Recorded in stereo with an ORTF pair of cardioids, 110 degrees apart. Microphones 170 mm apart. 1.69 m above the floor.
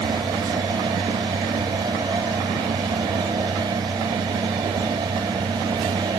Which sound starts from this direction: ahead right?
A fan, at 0.0 s.